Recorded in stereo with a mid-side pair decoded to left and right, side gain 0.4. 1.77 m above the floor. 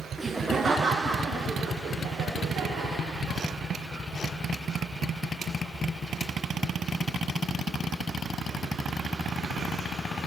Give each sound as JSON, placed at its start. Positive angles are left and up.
{"t": 0.2, "sound": "laughter", "azimuth_deg": -15, "distance_m": 0.7}